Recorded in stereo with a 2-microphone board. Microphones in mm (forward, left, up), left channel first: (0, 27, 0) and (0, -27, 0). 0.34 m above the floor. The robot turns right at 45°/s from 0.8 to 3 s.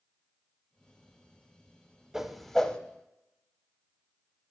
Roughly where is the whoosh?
Centre.